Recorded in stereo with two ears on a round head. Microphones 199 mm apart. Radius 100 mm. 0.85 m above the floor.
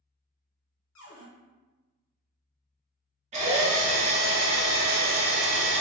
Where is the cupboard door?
65° left (ahead or behind), 1.1 m.